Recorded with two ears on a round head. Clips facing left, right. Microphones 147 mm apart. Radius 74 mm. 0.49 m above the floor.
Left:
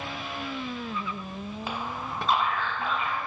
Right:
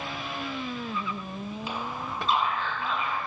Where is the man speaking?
35° left (ahead or behind), 1.6 m.